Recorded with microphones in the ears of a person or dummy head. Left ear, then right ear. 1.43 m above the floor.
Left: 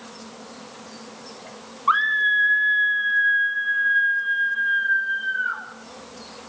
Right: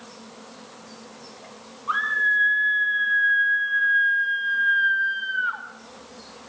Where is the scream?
50° left (ahead or behind), 1.6 m; by 5.6 s 35° right (ahead or behind), 4.5 m.